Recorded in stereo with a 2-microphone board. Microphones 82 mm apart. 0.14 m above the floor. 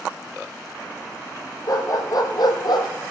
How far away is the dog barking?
About 2 m.